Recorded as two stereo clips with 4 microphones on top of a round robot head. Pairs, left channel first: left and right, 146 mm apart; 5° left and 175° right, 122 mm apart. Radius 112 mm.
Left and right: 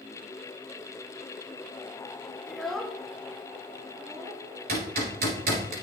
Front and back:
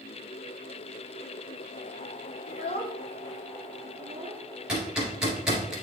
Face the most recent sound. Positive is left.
turn(degrees=-90)